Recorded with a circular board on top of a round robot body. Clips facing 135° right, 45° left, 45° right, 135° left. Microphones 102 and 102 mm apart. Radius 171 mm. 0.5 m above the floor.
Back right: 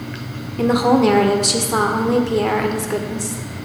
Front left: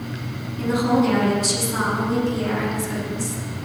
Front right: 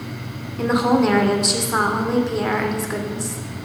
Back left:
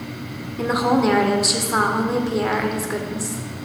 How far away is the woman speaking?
About 2.0 m.